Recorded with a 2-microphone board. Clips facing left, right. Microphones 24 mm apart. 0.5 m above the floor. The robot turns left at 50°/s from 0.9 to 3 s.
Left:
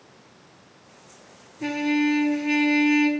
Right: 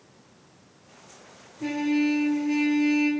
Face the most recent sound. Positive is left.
turn(degrees=85)